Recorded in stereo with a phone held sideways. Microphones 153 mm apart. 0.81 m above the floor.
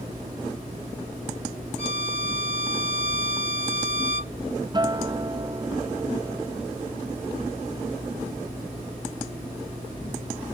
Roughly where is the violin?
Right.